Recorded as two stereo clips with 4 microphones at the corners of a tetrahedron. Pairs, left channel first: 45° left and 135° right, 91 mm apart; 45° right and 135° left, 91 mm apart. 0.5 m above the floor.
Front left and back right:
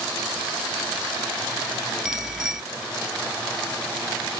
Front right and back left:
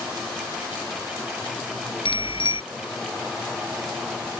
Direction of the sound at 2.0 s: 55° right.